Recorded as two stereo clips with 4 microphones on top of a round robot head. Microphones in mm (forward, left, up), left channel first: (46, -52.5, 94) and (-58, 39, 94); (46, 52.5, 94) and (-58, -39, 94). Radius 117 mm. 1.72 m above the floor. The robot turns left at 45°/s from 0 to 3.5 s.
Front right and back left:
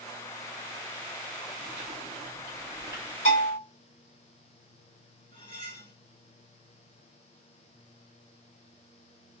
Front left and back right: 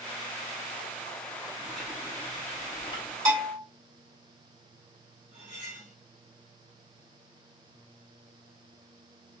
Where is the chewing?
140° left, 0.7 m; by 3.1 s 70° left, 0.7 m.